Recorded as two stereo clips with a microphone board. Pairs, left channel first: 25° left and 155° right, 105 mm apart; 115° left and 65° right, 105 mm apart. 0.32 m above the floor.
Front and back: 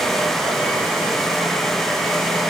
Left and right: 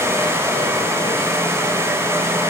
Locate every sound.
Only background noise.